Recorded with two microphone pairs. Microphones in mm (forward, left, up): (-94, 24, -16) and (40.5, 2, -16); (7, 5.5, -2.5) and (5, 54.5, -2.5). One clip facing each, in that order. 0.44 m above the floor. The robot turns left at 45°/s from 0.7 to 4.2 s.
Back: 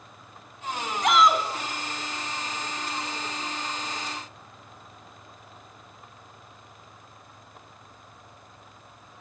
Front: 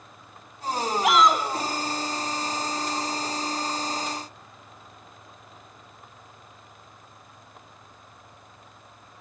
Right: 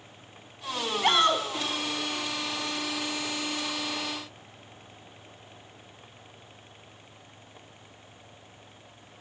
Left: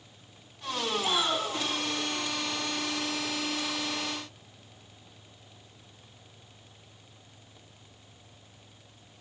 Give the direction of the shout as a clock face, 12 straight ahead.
3 o'clock.